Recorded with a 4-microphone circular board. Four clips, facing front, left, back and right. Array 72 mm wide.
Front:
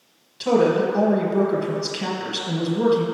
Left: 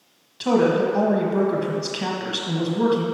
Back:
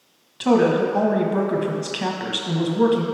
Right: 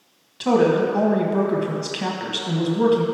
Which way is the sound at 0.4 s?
165° right.